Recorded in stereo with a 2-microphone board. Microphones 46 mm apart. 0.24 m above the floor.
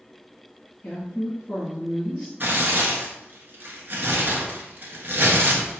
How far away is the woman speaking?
About 2 m.